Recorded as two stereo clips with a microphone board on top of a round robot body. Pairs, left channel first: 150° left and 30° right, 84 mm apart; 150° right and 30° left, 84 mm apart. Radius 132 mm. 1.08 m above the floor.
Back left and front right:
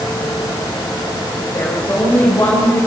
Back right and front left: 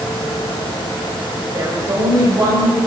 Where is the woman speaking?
85° left, 5.5 m; by 2.8 s 80° left, 6 m.